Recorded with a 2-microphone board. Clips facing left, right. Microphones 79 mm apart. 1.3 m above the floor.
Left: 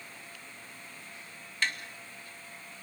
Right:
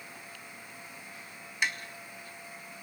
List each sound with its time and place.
1.6 s tapping: 15° right (ahead or behind), 1.9 m